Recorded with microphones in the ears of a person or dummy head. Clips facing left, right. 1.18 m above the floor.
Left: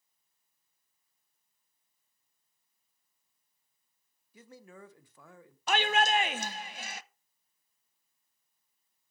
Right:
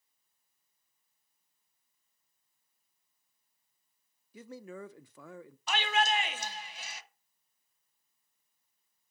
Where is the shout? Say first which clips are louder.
Left 3 dB; 45° left (ahead or behind), 0.7 m.